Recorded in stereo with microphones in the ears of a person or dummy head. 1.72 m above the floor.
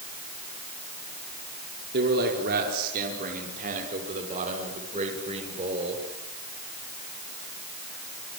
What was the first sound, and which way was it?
A man speaking, 50° right (ahead or behind).